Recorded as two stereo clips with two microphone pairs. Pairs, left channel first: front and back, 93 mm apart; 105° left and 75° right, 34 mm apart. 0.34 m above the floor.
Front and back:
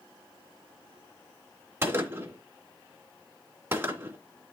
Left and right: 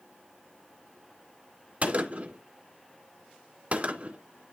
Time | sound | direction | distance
1.8 | a gunshot | 115° right | 2 m